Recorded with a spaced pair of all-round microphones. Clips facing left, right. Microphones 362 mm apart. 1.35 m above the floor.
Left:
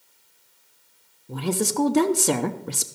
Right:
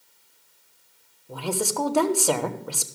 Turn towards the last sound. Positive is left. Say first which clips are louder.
# left 3 dB
turn(degrees=30)  # may be behind; listen again after turning